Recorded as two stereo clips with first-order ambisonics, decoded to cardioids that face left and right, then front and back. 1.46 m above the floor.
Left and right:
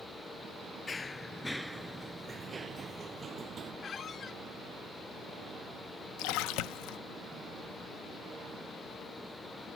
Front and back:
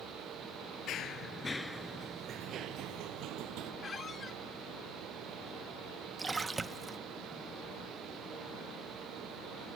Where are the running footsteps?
25° left; by 3.7 s 155° right.